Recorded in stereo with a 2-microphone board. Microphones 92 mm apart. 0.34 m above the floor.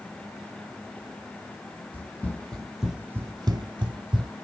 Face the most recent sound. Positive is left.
turn(degrees=-70)  # may be behind; listen again after turning